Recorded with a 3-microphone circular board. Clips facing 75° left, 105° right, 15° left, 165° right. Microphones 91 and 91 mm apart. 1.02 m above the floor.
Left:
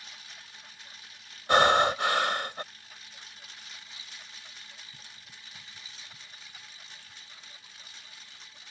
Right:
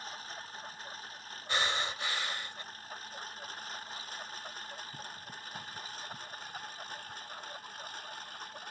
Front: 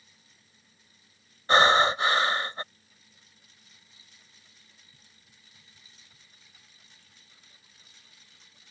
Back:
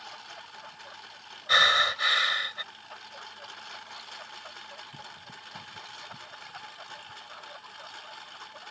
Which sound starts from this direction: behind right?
A lawn mower, at 0.0 s.